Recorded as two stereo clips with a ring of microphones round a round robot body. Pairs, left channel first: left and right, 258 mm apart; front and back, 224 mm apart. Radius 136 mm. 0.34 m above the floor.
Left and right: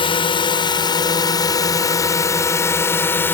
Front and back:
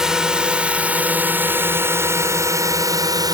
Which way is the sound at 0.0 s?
100° left.